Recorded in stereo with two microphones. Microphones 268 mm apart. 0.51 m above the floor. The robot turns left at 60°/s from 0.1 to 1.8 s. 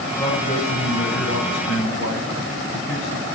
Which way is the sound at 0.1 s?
175° left.